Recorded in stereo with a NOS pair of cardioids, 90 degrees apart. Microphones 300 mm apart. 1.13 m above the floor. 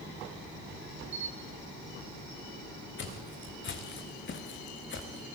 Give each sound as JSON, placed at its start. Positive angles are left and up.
{"t": 1.1, "sound": "a camera shutter", "azimuth_deg": -40, "distance_m": 3.5}
{"t": 3.0, "sound": "footsteps", "azimuth_deg": 40, "distance_m": 4.0}